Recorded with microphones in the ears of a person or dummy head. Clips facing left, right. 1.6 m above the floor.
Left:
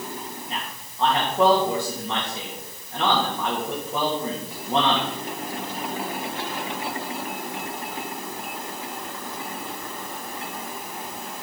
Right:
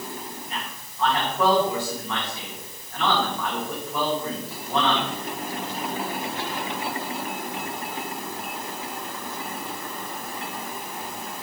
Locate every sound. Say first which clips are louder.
0.5 s a man speaking: left 1 dB; 30° left (ahead or behind), 2.5 m